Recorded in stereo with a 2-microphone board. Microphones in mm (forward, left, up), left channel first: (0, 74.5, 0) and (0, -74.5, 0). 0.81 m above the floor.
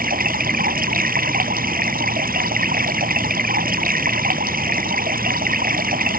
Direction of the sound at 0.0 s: 80° right.